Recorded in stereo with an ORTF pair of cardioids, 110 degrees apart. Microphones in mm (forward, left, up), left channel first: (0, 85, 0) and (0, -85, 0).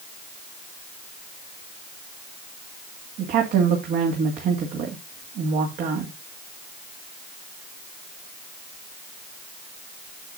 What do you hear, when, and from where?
3.2 s a woman speaking: 70° right, 2 m